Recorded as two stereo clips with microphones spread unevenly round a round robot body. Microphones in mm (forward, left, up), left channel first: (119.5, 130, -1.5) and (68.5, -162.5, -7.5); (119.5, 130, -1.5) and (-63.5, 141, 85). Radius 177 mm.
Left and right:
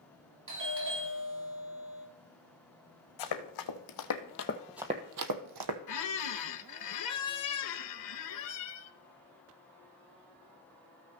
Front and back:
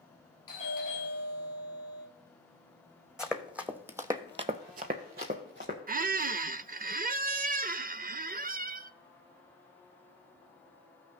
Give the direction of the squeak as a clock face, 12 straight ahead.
8 o'clock.